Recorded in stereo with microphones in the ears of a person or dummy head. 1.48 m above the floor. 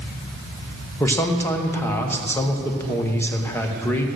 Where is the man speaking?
10° left (ahead or behind), 1.1 m.